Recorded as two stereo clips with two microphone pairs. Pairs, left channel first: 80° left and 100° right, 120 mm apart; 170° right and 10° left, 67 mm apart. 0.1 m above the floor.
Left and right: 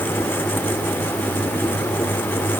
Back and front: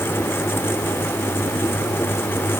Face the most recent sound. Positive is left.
No sound to turn to.